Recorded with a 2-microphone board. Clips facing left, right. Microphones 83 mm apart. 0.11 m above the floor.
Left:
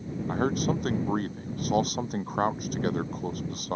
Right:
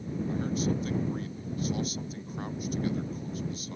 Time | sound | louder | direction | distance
0.3 | a man speaking | left 5 dB | 60° left (ahead or behind) | ?